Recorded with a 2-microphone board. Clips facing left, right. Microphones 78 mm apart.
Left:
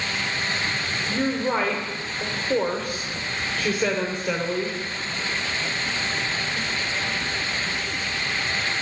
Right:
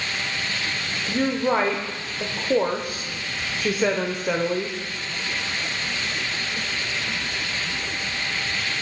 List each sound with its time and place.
1.1 s a woman speaking: 20° right (ahead or behind), 0.8 m